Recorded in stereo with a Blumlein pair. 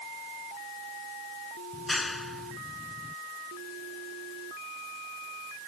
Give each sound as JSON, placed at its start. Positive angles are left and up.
{"t": 1.7, "sound": "a clap", "azimuth_deg": 10}